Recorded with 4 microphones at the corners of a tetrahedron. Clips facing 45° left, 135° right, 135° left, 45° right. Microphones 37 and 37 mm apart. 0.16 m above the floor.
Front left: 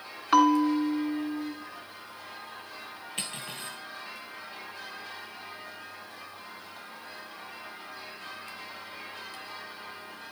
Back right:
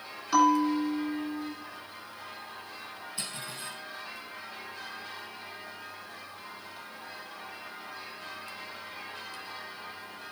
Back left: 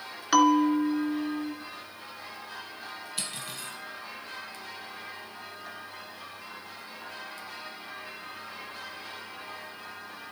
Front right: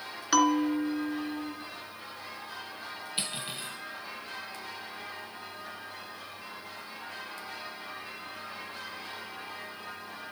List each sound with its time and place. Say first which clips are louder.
0.3 s a bell: front left 2 dB, back left 4 dB; 55° left, 1.4 m
3.2 s cutlery clinking: front left 3 dB, front right 3 dB; 15° left, 2.5 m